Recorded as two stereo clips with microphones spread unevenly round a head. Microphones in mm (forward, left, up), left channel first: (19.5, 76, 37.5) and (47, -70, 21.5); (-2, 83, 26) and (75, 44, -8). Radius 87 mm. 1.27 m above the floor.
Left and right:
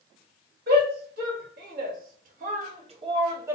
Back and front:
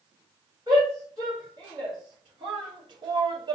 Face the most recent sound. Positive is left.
turn(degrees=-5)